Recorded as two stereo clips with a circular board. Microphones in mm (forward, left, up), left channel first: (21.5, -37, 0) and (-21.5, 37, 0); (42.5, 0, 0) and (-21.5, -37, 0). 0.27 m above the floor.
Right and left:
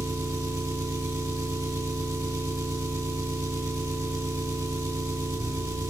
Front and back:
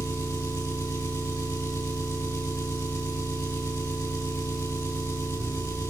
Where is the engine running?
80° left, 2 m.